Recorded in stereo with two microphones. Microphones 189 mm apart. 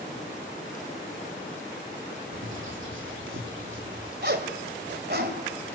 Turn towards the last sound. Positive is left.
turn(degrees=-60)  # may be behind; listen again after turning